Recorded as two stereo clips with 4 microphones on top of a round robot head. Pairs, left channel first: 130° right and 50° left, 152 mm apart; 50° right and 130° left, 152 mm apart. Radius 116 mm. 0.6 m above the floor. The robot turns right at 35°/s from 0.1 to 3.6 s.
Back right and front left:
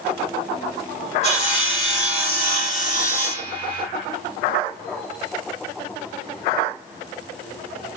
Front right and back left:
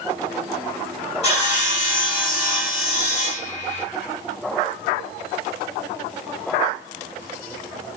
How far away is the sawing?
About 2.5 m.